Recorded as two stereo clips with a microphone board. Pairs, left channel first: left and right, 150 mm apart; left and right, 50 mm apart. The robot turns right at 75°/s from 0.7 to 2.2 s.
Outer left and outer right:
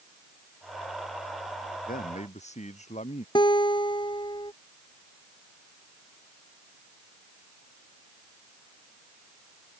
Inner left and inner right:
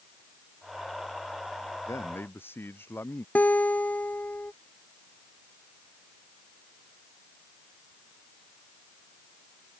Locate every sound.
1.9 s a man speaking: 70° left (ahead or behind); by 3.2 s 50° left (ahead or behind)
3.4 s a guitar: 30° left (ahead or behind)